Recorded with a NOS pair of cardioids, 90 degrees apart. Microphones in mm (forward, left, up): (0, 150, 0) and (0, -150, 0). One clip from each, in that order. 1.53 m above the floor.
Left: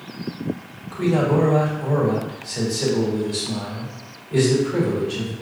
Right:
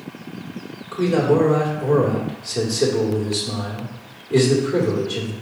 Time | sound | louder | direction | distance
0.9 | a man speaking | right 2 dB | 55° right | 2.0 m